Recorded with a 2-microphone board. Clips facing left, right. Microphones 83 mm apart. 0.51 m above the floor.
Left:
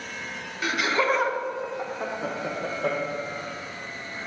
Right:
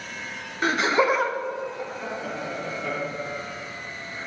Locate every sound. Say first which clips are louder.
0.6 s laughter: right 3 dB; 40° right (ahead or behind), 0.9 m; by 4.3 s 65° left (ahead or behind), 3 m